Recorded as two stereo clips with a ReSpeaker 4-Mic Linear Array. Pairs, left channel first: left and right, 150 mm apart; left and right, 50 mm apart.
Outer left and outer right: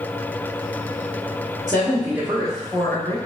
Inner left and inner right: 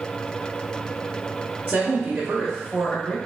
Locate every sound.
1.7 s a woman speaking: 30° right (ahead or behind), 1.1 m; by 3.2 s 25° left (ahead or behind), 1.0 m